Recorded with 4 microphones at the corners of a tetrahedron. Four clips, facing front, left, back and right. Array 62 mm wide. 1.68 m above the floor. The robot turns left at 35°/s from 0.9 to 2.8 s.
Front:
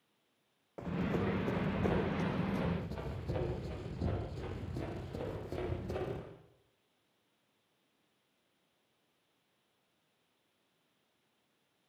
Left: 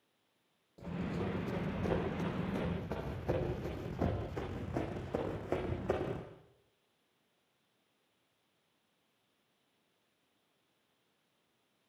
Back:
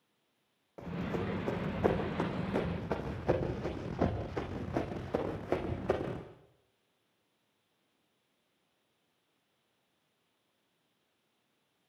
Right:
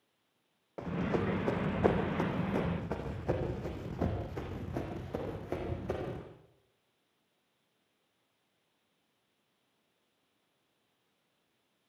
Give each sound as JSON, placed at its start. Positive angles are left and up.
{"t": 0.8, "sound": "running footsteps", "azimuth_deg": -80, "distance_m": 6.5}